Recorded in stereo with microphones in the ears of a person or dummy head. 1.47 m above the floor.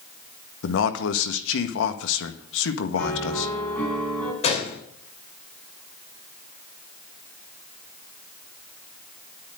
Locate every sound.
0.6 s a man speaking: 75° left (ahead or behind), 1.5 m
3.0 s a piano: 10° left (ahead or behind), 5 m
4.4 s a gunshot: 35° left (ahead or behind), 3 m